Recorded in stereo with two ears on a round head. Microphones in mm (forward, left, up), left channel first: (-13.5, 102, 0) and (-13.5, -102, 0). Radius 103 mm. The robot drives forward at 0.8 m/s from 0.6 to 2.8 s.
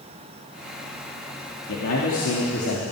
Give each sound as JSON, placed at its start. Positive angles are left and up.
{"t": 1.7, "sound": "a man speaking", "side_deg": 75, "distance_m": 2.5}